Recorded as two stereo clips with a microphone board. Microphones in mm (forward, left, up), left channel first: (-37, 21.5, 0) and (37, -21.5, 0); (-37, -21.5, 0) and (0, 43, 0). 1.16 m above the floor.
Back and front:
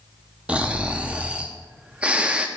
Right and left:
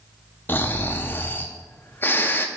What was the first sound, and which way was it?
Snoring, 95° right.